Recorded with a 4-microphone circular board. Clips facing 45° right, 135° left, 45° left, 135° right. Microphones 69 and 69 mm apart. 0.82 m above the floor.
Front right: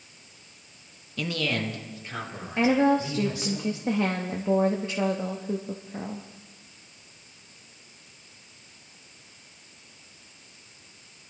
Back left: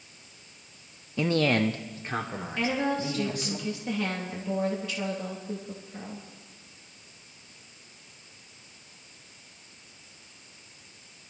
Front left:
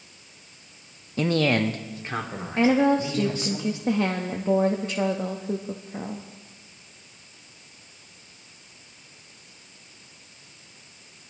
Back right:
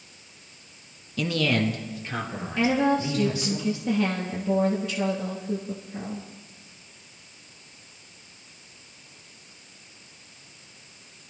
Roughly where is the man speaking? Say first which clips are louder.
Back left 5 dB, front left 3 dB; left.